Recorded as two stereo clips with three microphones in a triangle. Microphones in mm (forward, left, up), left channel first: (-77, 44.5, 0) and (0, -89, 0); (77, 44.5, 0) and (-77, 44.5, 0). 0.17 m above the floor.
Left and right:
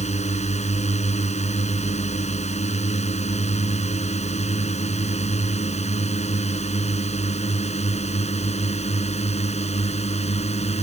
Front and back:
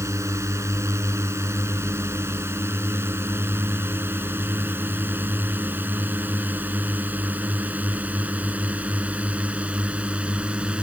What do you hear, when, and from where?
0.0 s a drone: 115° left; by 10.8 s 100° left